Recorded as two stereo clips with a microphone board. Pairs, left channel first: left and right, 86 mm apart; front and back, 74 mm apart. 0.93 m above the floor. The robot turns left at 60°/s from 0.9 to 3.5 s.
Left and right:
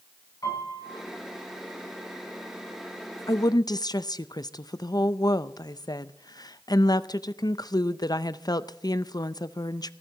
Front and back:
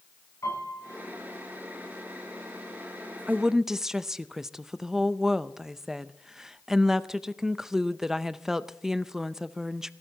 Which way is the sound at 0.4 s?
45° left.